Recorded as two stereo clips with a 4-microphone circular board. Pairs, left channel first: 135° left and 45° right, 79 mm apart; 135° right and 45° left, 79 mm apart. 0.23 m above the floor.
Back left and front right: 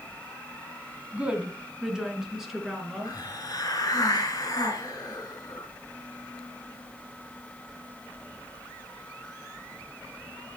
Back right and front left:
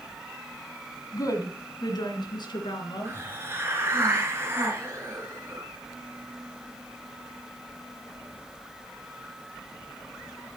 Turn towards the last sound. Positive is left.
turn(degrees=105)